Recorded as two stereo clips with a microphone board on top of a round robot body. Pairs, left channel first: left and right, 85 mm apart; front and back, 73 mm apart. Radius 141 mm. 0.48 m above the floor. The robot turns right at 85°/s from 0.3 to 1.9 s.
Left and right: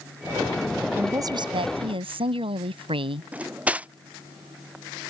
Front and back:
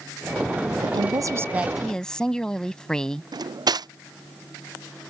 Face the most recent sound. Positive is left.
turn(degrees=-165)